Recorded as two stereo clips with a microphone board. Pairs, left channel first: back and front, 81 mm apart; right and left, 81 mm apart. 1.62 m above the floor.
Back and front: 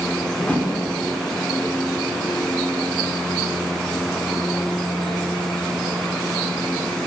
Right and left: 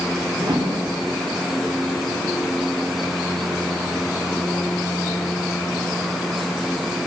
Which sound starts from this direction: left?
A whoosh, at 0.4 s.